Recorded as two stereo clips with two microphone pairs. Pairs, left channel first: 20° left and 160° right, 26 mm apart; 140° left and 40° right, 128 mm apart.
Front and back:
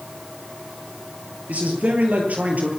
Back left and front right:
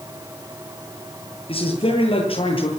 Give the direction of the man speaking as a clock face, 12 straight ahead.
6 o'clock.